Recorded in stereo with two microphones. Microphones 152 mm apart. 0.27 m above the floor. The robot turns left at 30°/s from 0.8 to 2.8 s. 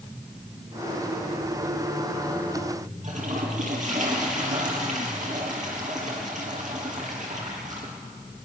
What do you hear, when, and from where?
3.0 s a toilet flushing: 55° right (ahead or behind), 4.5 m